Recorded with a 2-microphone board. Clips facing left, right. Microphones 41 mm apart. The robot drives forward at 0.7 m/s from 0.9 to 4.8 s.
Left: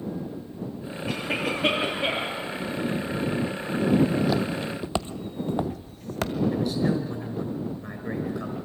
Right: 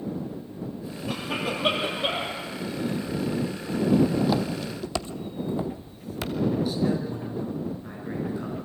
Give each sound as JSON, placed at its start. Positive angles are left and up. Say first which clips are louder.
{"t": 1.1, "sound": "a cough", "louder": "left 2 dB", "side_deg": 80, "distance_m": 6.0}
{"t": 4.0, "sound": "footsteps", "louder": "even", "side_deg": -10, "distance_m": 0.9}
{"t": 6.5, "sound": "a man speaking", "louder": "even", "side_deg": 65, "distance_m": 4.5}